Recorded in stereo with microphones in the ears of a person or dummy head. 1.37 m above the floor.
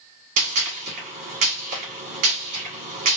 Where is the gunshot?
40° right (ahead or behind), 1.1 m.